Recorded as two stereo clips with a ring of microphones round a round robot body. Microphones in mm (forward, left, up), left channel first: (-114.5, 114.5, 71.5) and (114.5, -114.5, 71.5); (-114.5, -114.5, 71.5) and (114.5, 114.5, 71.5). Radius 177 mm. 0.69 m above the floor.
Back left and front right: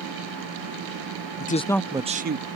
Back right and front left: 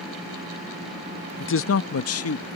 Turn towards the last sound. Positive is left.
turn(degrees=-95)